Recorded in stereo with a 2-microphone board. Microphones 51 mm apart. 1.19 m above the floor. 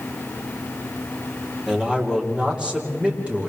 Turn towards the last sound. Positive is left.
turn(degrees=-25)  # may be behind; listen again after turning